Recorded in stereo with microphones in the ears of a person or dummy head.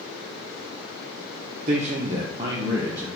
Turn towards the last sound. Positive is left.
turn(degrees=-15)  # may be behind; listen again after turning